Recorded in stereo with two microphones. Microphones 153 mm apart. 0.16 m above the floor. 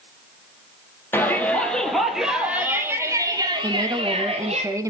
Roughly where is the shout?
Centre.